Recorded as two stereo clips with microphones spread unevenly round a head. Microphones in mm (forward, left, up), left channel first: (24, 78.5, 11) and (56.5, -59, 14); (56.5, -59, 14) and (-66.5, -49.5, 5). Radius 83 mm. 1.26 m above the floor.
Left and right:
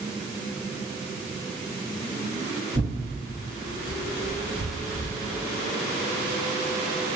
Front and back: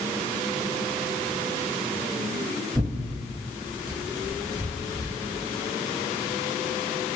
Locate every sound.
2.8 s tearing paper: 90° right, 1.2 m